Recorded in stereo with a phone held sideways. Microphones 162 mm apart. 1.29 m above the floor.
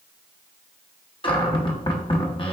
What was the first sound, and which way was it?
A cupboard door, 30° left (ahead or behind).